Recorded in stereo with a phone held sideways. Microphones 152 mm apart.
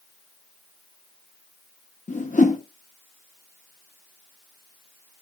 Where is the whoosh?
55° left (ahead or behind), 0.9 m.